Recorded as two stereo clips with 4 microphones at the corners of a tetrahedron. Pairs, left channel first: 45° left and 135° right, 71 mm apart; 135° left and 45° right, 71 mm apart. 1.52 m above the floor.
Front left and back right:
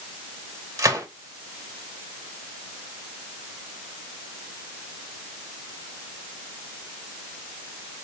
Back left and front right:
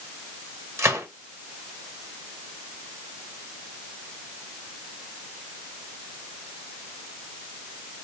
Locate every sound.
0.8 s a gunshot: 95° right, 1.3 m